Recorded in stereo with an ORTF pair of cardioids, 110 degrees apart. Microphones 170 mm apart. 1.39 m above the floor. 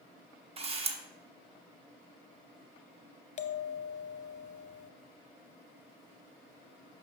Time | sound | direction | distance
0.6 | a camera shutter | 35° right | 0.9 m
3.4 | a bell | 40° left | 0.6 m